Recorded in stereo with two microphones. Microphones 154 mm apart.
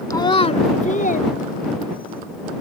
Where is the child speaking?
25° left (ahead or behind); by 2.2 s 75° left (ahead or behind).